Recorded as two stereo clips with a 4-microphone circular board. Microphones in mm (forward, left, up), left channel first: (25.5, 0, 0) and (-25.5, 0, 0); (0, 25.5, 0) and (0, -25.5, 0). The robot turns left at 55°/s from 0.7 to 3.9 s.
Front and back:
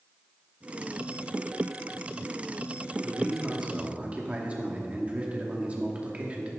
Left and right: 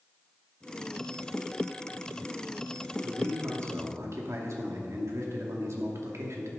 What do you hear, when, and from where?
3.0 s a man speaking: 65° right, 2 m; by 6.5 s 115° right, 2 m